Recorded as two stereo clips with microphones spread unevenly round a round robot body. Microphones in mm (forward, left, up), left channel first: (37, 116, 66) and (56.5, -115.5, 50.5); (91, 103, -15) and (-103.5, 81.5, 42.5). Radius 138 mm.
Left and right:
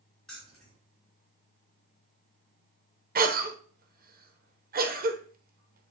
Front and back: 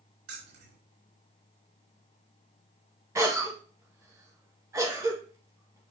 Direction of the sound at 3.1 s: 85° right.